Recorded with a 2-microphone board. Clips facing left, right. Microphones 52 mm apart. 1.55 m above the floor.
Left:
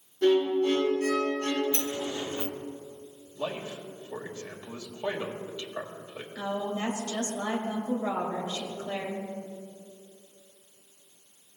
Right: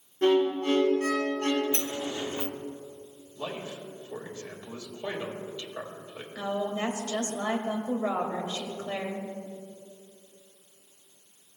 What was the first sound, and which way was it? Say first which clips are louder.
A violin: even; 45° right (ahead or behind).